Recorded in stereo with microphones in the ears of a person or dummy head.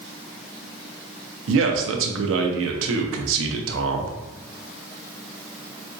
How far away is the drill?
No drill in this recording.